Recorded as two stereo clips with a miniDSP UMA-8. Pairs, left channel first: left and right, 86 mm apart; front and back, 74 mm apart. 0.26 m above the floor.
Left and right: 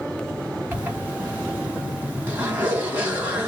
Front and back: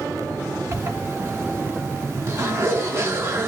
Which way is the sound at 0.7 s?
150° right.